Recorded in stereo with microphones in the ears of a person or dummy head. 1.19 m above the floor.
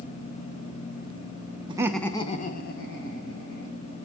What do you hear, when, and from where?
1.7 s laughter: 25° right (ahead or behind), 0.7 m; by 3.8 s 65° left (ahead or behind), 2 m